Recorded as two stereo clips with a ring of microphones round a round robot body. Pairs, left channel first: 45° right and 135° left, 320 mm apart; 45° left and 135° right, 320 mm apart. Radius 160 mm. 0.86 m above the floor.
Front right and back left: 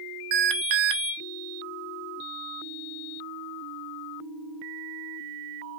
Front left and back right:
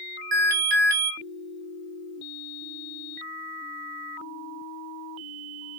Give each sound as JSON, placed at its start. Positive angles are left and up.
{"t": 0.3, "sound": "an alarm", "azimuth_deg": 160, "distance_m": 1.0}